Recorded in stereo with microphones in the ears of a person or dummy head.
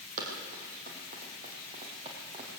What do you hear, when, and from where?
0.2 s running footsteps: 50° right (ahead or behind), 5 m; by 2.5 s 35° right (ahead or behind), 4.5 m